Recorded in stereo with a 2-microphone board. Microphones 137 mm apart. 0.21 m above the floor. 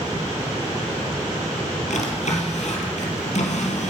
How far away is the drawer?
About 3 m.